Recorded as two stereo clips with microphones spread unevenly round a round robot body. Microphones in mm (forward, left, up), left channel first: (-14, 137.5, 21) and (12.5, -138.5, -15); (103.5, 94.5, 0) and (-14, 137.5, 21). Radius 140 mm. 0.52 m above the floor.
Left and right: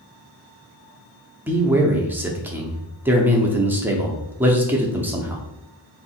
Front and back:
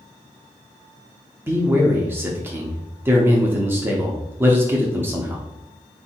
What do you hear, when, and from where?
1.5 s a man speaking: 130° right, 0.7 m